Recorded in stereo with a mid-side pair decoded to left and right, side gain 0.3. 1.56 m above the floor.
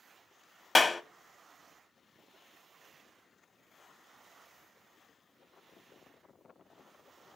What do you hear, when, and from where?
0.8 s a clap: 40° left, 1.0 m